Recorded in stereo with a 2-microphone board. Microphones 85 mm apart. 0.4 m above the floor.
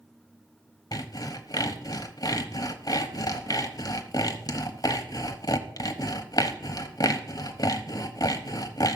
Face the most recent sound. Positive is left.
turn(degrees=50)  # may be behind; listen again after turning